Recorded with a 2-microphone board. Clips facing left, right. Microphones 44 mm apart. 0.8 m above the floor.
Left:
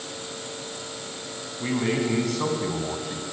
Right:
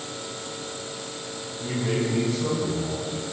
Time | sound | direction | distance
1.6 | a man speaking | 85° left | 7.5 m